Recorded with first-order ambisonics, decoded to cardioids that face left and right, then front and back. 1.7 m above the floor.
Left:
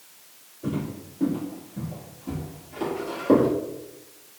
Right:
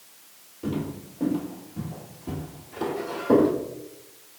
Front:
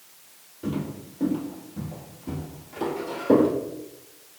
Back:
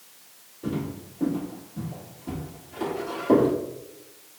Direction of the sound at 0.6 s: 55° right.